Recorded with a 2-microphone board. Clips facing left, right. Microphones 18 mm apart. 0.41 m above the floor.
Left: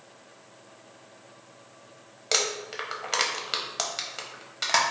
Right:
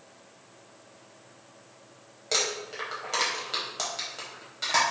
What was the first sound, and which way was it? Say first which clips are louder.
Crumpling: left 1 dB; 30° left (ahead or behind).